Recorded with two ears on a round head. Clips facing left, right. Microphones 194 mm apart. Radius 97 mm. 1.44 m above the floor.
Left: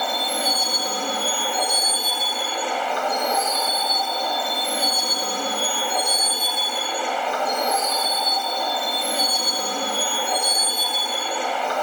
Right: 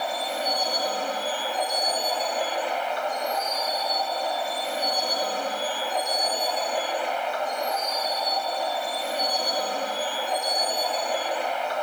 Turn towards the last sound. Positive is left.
turn(degrees=70)  # may be behind; listen again after turning